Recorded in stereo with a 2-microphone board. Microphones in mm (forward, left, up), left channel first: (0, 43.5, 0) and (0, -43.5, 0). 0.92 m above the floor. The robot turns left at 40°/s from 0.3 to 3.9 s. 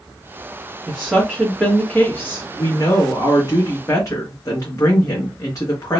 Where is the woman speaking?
165° right, 0.9 m; by 6.0 s 75° left, 0.9 m.